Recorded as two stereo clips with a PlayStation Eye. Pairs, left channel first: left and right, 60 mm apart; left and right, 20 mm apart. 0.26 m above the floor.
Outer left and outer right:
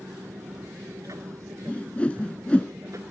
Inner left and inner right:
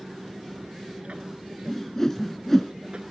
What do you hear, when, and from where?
0.0 s an aircraft: 60° right (ahead or behind)
1.7 s a whoosh: 20° left (ahead or behind)